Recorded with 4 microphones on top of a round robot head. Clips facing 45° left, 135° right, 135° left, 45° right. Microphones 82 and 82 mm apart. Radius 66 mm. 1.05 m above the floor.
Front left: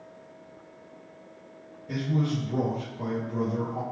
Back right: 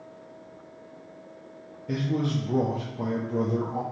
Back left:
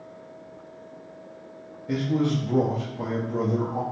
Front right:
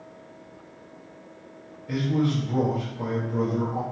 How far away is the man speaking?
About 0.9 m.